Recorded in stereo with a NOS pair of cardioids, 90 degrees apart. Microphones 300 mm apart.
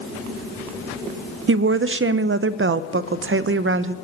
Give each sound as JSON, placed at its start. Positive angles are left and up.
{"t": 1.5, "sound": "a woman speaking", "azimuth_deg": -45, "distance_m": 0.7}